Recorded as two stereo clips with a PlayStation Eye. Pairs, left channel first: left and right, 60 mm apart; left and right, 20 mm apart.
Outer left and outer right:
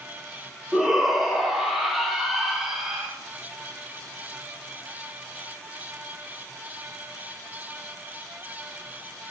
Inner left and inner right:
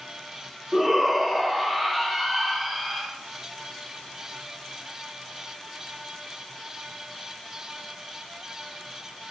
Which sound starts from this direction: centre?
A shout, at 0.7 s.